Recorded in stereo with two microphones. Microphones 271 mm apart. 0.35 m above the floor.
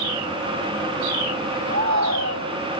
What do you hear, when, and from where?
1.7 s a shout: 85° right